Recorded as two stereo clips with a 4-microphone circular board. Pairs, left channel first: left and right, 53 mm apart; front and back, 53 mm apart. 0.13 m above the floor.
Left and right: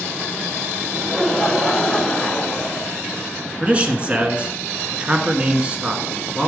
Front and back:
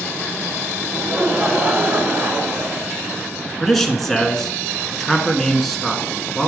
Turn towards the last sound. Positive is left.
turn(degrees=-85)